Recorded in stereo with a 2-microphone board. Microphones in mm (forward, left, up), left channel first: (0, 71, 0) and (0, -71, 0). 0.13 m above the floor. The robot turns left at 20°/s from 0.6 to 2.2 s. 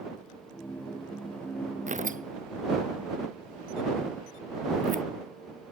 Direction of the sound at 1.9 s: 60° right (ahead or behind).